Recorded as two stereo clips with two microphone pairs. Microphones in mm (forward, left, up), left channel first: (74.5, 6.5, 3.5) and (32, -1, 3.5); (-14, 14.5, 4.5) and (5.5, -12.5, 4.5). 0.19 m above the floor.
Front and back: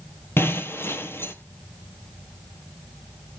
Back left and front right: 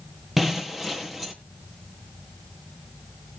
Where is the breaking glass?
30° left, 1.8 m.